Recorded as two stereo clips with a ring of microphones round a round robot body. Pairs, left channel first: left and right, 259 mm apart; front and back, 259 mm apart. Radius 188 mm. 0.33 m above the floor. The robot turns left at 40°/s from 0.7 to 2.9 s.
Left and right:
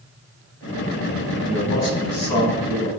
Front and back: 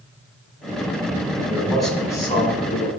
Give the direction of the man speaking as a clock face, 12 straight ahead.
8 o'clock.